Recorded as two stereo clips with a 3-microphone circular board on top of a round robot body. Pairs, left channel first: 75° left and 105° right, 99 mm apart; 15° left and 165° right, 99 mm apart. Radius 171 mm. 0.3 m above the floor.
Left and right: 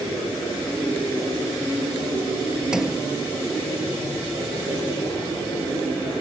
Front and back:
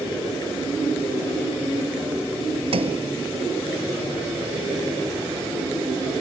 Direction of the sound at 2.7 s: 170° left.